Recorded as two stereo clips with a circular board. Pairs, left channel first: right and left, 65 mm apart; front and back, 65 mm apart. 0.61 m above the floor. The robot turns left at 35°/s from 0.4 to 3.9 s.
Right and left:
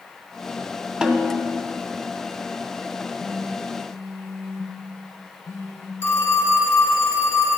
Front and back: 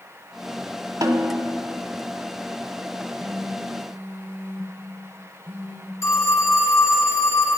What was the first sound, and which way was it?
A snare drum, 165° left.